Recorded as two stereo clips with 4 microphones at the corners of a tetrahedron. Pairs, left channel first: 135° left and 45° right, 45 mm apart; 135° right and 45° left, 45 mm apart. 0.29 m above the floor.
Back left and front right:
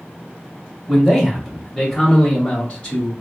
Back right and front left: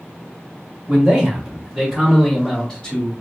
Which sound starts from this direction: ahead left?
A man speaking, at 0.9 s.